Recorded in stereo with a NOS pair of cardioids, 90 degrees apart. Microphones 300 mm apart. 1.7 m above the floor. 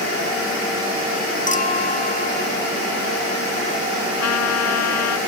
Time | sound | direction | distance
1.5 | a clink | 30° left | ?
4.2 | a trumpet | 65° left | ?